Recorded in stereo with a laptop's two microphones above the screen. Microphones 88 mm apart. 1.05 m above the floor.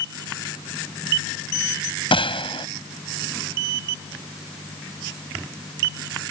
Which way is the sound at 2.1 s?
80° left.